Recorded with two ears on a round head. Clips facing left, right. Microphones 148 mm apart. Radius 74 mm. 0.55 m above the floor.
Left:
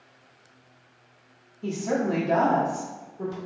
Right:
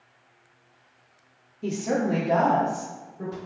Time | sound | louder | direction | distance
1.6 | a woman speaking | right 1 dB | 20° right (ahead or behind) | 0.6 m